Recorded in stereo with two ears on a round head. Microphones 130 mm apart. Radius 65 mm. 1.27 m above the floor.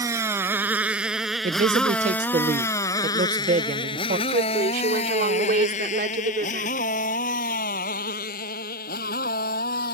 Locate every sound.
0.0 s a motorcycle: 20° right (ahead or behind); by 9.9 s 70° left (ahead or behind)
1.4 s a man speaking: 60° right (ahead or behind)
4.3 s a woman speaking: 65° right (ahead or behind)